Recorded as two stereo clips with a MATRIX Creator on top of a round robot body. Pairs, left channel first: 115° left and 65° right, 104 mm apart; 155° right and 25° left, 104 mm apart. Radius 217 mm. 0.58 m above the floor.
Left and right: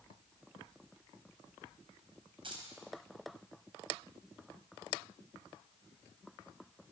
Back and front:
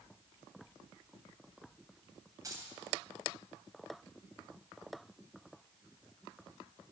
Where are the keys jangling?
35° right, 3.5 m.